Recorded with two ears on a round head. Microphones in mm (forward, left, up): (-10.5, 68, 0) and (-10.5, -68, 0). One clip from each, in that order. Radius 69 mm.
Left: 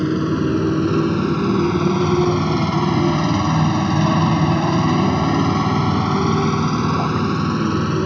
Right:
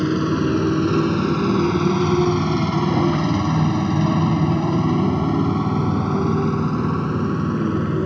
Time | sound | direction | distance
0.0 | a motorcycle | 15° right (ahead or behind) | ?